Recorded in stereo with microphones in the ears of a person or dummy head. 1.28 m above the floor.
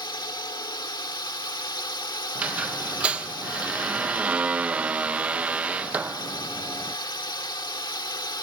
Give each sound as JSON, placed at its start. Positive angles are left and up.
{"t": 0.0, "sound": "a drone", "side_deg": 25}
{"t": 2.4, "sound": "a squeak", "side_deg": -5}